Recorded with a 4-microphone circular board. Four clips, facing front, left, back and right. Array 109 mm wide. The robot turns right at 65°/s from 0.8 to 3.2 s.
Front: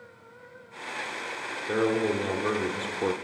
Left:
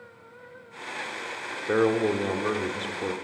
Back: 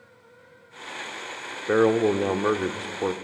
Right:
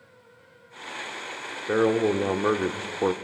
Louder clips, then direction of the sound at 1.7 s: Right 1 dB, back 6 dB; 170° left.